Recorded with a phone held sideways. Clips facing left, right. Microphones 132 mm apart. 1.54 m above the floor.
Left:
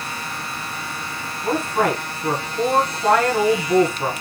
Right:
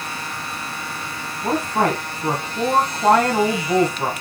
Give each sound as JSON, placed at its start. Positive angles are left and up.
{"t": 1.4, "sound": "a woman speaking", "side_deg": -35, "distance_m": 1.7}